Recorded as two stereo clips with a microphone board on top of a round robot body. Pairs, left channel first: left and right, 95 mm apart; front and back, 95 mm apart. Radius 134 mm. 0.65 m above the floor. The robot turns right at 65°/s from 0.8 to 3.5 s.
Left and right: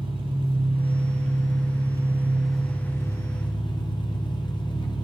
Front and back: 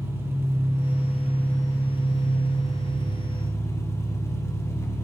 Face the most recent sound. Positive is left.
turn(degrees=60)